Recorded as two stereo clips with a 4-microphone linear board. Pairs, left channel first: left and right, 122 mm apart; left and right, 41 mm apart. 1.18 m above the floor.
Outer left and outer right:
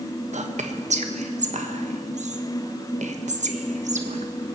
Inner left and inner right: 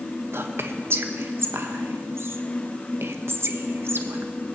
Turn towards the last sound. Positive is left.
turn(degrees=-75)  # may be behind; listen again after turning